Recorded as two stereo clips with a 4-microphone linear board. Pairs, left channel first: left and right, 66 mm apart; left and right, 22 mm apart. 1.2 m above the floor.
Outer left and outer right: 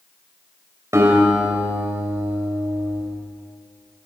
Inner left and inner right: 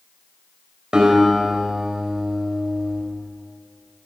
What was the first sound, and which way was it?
A guitar, 45° right (ahead or behind).